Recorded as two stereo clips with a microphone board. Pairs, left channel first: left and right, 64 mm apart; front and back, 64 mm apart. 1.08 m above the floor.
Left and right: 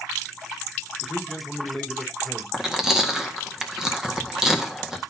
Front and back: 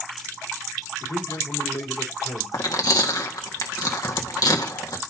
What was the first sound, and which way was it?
A man speaking, straight ahead.